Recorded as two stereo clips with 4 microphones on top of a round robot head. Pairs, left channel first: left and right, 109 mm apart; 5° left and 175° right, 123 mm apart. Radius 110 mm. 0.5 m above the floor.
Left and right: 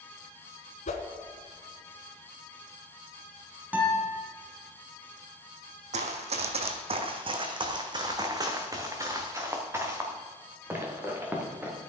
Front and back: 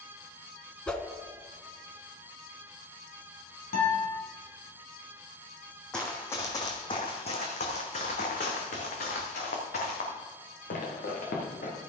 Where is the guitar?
15° right, 3 m.